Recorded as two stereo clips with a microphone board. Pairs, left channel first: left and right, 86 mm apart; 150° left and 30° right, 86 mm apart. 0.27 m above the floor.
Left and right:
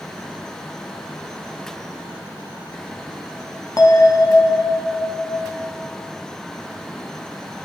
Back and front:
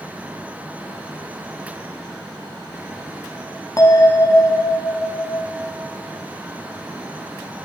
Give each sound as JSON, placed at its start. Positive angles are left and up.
{"t": 3.8, "sound": "a bell", "azimuth_deg": 115, "distance_m": 0.7}